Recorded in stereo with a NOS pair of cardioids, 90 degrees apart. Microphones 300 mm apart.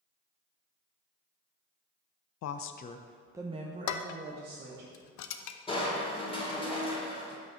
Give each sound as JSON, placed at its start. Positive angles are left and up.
{"t": 2.4, "sound": "a woman speaking", "azimuth_deg": 65, "distance_m": 0.6}
{"t": 3.9, "sound": "dishes clattering", "azimuth_deg": 70, "distance_m": 0.6}
{"t": 5.7, "sound": "crushing", "azimuth_deg": 15, "distance_m": 2.5}